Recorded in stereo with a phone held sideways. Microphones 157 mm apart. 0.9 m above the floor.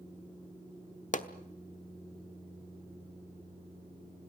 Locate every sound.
1.1 s a pop: 55° left (ahead or behind), 1.0 m